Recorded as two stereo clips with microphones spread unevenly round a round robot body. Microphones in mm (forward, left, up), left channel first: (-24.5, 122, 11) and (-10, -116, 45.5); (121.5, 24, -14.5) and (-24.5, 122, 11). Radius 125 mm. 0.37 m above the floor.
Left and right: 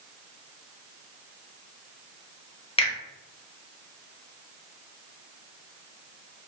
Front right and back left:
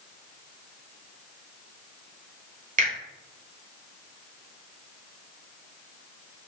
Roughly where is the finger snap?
Behind left.